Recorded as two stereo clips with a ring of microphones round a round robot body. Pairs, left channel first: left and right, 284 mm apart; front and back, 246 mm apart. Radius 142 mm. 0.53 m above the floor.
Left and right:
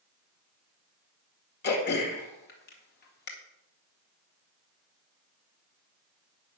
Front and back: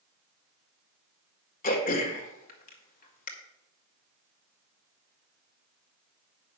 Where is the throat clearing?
45° left, 1.9 m.